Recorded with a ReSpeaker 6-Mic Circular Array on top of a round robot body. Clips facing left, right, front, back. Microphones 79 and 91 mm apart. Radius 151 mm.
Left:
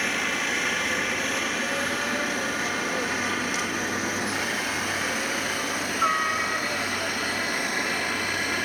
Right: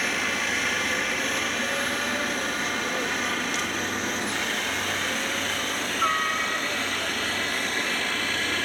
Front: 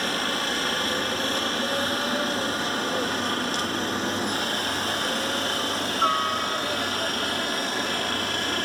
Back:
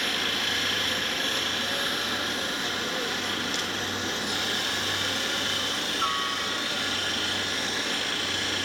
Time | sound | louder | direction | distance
0.0 | a helicopter | even, front 4 dB | straight ahead | ?